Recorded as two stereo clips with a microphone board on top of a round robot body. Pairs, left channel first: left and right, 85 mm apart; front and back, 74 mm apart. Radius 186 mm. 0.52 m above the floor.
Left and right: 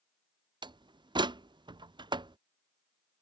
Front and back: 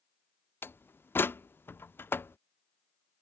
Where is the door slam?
60° right.